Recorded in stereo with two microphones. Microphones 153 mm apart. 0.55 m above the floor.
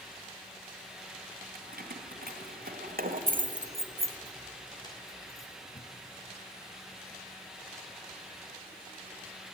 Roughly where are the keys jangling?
Right.